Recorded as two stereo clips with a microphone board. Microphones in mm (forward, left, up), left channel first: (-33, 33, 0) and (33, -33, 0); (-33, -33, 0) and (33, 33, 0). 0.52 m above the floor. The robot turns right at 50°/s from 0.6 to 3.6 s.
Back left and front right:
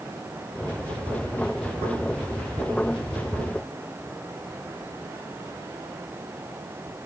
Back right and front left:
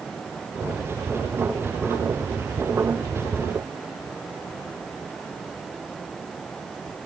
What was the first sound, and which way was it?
Only background noise.